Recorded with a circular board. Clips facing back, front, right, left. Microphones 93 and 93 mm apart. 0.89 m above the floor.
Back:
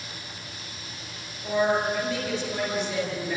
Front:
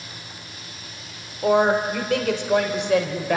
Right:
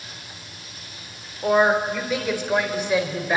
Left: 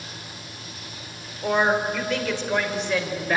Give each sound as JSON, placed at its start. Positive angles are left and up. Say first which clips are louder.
{"t": 1.4, "sound": "a woman speaking", "louder": "front 6 dB, right 3 dB", "azimuth_deg": -10, "distance_m": 3.5}